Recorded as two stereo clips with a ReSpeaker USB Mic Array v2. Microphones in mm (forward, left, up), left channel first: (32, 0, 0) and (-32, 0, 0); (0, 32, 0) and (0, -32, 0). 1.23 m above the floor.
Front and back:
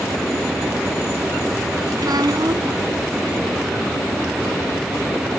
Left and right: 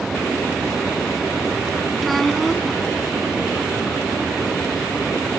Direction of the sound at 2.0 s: Straight behind.